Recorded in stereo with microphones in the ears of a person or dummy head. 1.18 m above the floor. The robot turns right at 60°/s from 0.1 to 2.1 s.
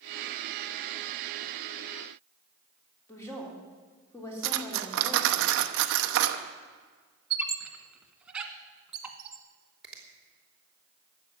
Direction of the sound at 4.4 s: 70° right (ahead or behind).